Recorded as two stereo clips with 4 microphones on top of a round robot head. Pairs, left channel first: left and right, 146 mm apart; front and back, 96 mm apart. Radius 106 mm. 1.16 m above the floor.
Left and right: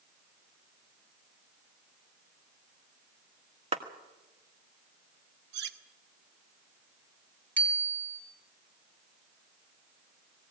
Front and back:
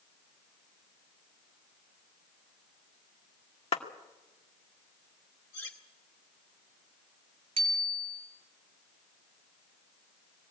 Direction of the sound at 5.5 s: 75° right.